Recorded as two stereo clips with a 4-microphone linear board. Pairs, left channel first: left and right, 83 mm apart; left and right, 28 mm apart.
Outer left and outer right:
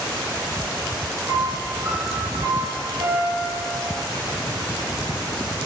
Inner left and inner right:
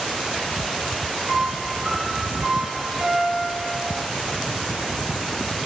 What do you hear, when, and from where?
1.3 s a piano: 55° right (ahead or behind), 2 m